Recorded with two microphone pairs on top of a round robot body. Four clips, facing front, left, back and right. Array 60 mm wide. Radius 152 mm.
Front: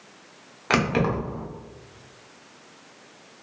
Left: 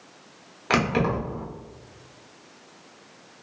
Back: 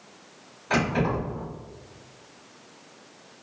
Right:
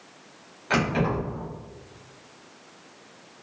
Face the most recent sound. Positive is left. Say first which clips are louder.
# left 1 dB, front 2 dB
turn(degrees=25)